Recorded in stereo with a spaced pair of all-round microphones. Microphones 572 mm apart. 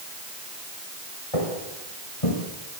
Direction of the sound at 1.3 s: 65° left (ahead or behind).